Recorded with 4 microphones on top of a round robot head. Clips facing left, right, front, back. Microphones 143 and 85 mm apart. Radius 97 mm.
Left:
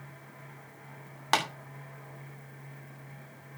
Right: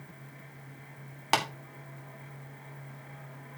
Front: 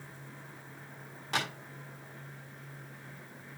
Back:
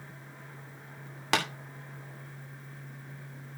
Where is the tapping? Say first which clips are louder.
Even, back 5 dB; 170° right, 2.5 m.